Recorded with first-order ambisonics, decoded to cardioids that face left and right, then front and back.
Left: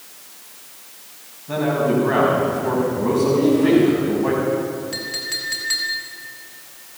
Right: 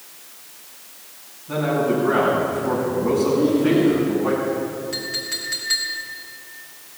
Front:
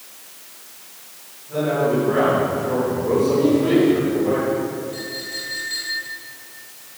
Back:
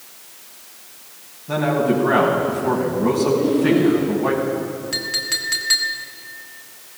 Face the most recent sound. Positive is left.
turn(degrees=175)